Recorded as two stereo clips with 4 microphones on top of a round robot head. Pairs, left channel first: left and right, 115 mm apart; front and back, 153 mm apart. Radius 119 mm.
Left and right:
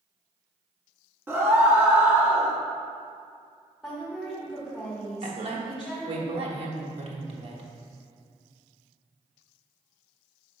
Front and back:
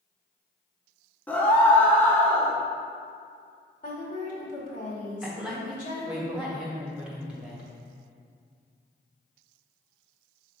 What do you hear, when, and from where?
1.3 s a scream: 60° right, 0.9 m
3.8 s a woman speaking: 5° right, 2 m
5.2 s a woman speaking: 100° right, 1.3 m